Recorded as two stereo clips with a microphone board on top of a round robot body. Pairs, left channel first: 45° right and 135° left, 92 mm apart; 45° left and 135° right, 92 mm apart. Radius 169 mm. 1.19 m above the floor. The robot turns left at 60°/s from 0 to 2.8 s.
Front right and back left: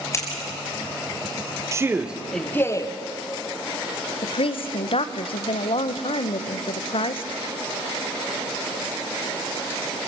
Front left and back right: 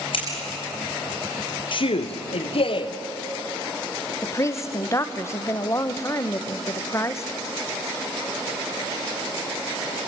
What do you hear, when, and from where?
0.1 s scissors: 15° left, 5.5 m; by 0.3 s 10° left, 5.5 m
1.7 s a man speaking: 75° left, 0.9 m; by 2.9 s 10° left, 0.9 m
4.2 s a woman speaking: 15° right, 1.0 m